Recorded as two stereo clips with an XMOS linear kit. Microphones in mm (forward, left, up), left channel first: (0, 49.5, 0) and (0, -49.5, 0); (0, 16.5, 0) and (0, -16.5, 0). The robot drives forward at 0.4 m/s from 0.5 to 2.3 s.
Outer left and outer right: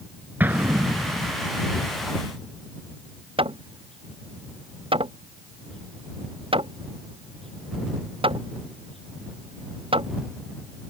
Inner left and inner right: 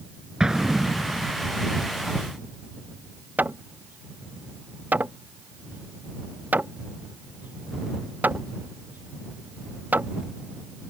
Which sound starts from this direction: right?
Hammering, at 3.4 s.